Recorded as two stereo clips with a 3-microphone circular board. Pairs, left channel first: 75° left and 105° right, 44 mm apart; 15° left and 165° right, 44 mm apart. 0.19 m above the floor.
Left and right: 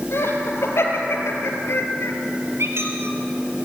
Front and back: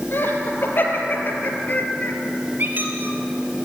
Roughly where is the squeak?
Behind right.